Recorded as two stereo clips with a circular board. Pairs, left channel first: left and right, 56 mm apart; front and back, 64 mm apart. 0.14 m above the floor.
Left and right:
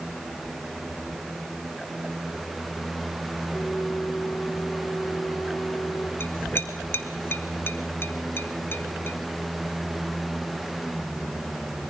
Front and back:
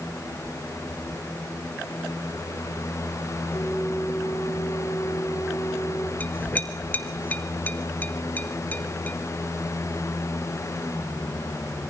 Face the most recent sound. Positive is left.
turn(degrees=55)